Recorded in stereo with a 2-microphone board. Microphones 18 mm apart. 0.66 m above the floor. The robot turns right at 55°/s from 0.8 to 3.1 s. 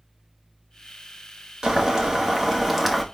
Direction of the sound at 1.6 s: 95° right.